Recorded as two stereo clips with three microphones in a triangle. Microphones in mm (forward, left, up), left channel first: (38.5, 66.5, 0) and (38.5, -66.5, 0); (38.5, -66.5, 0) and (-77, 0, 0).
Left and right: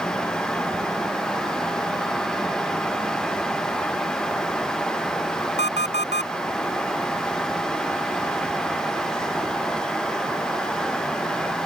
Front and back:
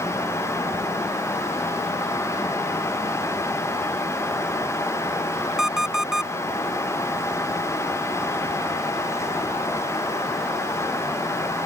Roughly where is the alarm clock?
Behind right.